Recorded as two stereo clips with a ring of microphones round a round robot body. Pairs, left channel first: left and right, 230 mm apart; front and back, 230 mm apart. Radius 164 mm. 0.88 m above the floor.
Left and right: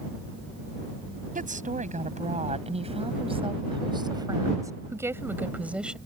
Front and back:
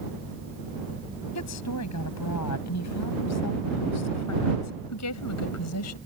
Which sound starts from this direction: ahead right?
A woman speaking, at 1.4 s.